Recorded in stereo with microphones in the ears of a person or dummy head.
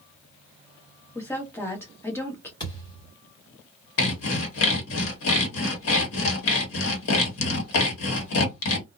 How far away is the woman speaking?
About 1.1 m.